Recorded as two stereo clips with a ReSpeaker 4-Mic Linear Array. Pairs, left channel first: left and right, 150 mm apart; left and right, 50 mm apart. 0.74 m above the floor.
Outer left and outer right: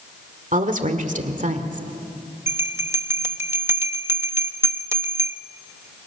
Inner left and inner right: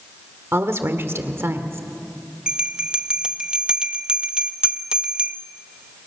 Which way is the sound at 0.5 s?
55° right (ahead or behind).